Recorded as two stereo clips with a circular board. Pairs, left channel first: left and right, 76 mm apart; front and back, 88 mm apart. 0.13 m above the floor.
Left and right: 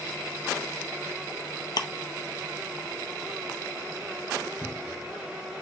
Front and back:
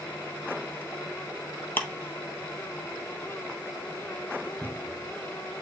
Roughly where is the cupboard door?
Behind left.